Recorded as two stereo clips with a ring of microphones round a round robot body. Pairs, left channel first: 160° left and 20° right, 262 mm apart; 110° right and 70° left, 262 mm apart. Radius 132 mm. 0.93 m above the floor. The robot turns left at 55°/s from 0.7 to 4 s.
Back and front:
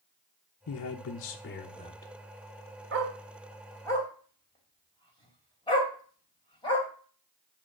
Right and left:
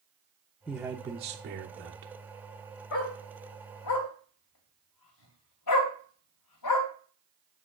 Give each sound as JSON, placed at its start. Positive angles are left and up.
{"t": 0.7, "sound": "a man speaking", "azimuth_deg": 160, "distance_m": 0.7}
{"t": 2.9, "sound": "a dog barking", "azimuth_deg": -70, "distance_m": 2.5}